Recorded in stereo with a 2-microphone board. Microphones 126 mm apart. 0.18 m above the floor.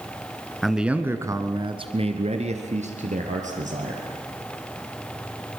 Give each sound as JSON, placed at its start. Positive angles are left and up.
{"t": 0.6, "sound": "a man speaking", "side_deg": 0, "distance_m": 1.8}